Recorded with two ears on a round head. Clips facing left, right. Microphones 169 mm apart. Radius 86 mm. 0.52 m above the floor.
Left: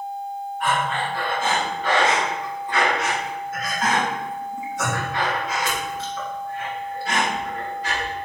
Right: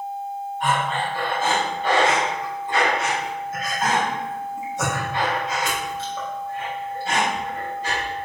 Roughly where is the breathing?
Right.